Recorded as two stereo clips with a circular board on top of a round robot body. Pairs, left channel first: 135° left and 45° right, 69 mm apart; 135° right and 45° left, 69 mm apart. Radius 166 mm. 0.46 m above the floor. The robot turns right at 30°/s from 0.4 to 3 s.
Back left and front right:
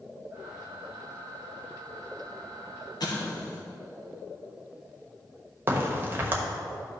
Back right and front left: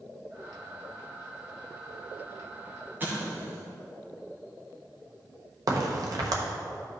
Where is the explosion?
110° left, 1.1 m.